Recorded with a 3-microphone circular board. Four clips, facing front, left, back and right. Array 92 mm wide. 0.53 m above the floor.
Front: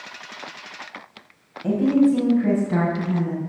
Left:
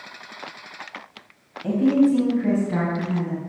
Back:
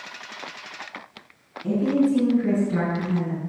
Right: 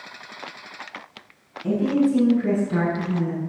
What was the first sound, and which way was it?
A woman speaking, 30° left.